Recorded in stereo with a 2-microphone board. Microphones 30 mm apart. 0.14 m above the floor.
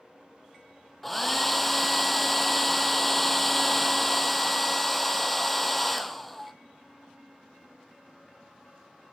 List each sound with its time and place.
1.0 s a hair dryer: 5° left (ahead or behind), 0.8 m